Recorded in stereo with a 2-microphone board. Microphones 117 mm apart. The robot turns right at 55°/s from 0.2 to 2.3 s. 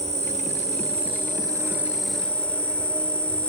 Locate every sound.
0.0 s an insect: 105° right, 0.7 m; by 3.5 s 10° left, 0.7 m